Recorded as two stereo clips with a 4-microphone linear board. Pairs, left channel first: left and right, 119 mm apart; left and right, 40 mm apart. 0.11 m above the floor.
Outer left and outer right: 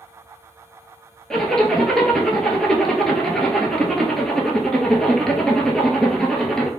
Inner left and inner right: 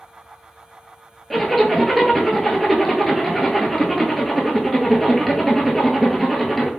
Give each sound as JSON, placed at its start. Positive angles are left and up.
{"t": 1.3, "sound": "a zipper", "side_deg": 5, "distance_m": 0.5}